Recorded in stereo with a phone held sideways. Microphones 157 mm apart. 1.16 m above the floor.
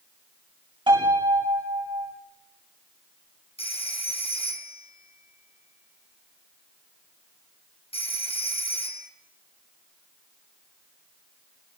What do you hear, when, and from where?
0.9 s a piano: 30° right (ahead or behind), 7 m
3.6 s a phone ringing: 35° left (ahead or behind), 4 m